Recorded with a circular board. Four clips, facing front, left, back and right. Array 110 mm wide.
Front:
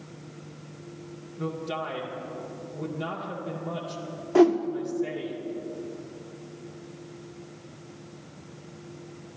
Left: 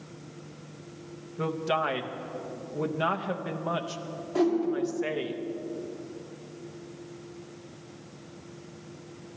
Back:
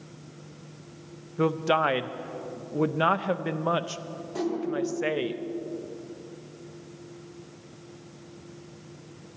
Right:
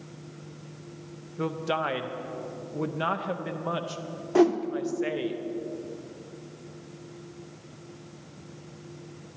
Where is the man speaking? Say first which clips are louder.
Left 1 dB, back 9 dB; straight behind, 0.6 m.